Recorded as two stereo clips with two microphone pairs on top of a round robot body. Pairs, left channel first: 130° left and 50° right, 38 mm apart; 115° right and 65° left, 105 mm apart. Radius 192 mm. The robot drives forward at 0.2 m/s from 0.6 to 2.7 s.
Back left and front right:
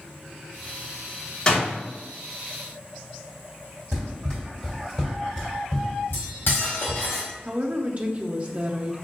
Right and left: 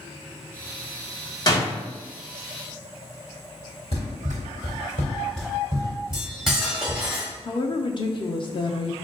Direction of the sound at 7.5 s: 100° right.